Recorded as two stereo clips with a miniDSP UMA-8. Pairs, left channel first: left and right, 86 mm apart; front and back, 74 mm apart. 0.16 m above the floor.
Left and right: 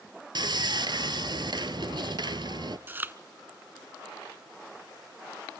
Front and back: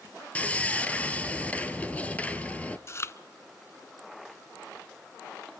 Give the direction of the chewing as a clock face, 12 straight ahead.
1 o'clock.